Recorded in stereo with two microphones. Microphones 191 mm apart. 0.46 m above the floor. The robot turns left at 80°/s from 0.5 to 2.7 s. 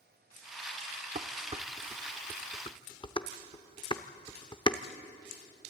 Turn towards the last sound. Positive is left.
turn(degrees=25)  # may be behind; listen again after turning